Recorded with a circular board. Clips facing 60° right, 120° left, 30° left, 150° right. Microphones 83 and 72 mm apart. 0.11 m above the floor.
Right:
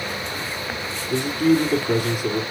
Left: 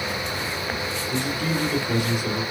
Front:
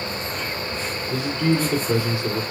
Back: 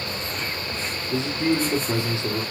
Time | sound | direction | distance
1.1 | a man speaking | 90° right | 2.5 m